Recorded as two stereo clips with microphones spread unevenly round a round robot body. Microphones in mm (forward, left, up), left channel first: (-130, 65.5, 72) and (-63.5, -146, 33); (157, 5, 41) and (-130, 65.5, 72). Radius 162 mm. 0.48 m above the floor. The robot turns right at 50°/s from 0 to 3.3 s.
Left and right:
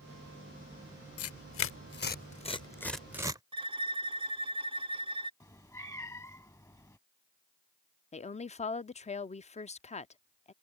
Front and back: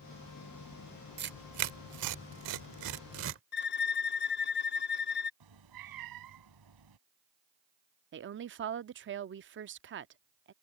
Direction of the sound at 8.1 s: 160° left.